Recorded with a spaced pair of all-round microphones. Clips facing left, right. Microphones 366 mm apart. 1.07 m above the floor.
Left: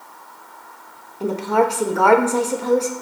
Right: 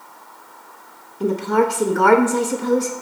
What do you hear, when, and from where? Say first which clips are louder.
1.2 s a woman speaking: right 1 dB; 25° right (ahead or behind), 1.1 m